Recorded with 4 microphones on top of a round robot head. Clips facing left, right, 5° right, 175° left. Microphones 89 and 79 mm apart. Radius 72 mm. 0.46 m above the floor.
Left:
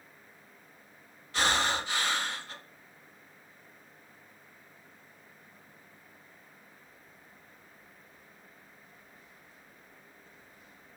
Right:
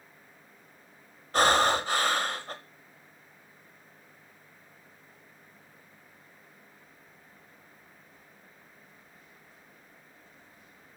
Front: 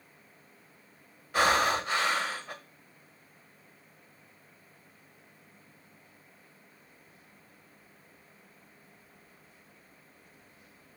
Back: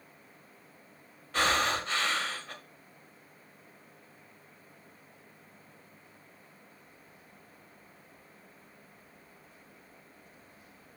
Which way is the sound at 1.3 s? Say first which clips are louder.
Right 6 dB, front 3 dB; 80° right.